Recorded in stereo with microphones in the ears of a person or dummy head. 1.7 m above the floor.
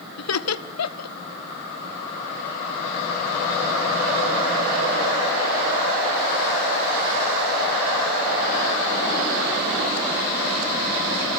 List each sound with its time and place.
0.2 s laughter: 90° left, 1.3 m